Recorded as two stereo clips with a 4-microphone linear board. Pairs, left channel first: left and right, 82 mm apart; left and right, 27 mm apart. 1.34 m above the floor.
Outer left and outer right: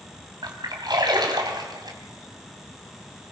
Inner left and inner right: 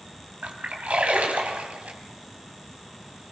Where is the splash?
60° right (ahead or behind), 3 m.